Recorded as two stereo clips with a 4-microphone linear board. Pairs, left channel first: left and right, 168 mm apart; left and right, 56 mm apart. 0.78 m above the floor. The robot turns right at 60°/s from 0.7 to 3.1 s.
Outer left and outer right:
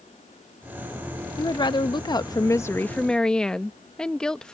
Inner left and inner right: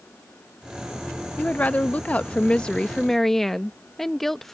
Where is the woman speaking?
25° left (ahead or behind); by 4.5 s 5° left (ahead or behind).